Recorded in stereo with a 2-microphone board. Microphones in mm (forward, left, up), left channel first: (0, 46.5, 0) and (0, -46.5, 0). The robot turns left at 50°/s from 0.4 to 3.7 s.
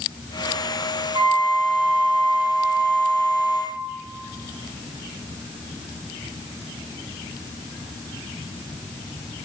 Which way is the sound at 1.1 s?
50° right.